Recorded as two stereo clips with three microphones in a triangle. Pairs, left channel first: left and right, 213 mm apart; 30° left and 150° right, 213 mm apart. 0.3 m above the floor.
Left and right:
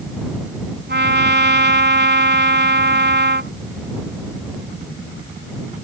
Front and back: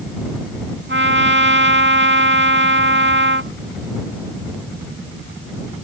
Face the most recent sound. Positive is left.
turn(degrees=-125)